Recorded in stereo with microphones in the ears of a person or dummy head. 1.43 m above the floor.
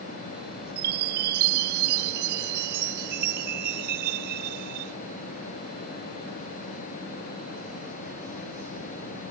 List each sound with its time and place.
0.8 s a chime: 55° right (ahead or behind)